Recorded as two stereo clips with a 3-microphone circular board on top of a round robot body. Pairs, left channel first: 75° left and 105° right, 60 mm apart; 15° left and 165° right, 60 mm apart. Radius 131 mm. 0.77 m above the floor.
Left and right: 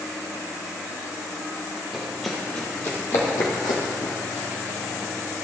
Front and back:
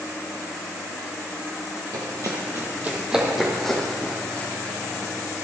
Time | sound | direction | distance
1.9 | running footsteps | 175° left | 2 m